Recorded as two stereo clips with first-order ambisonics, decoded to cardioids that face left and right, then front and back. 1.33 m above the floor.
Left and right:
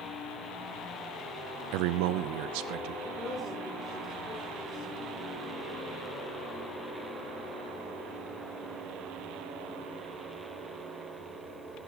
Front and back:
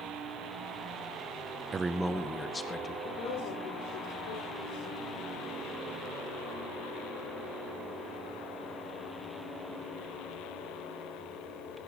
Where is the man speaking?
105° right, 0.7 m; by 2.9 s 75° right, 2 m.